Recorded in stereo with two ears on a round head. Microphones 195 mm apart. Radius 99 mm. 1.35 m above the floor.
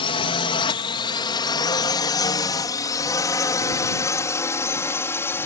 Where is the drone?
25° left (ahead or behind); by 5.5 s 10° left (ahead or behind).